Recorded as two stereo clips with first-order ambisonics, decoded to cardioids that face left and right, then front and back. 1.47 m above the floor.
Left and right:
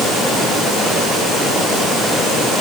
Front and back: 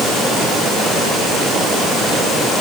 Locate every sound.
Only background noise.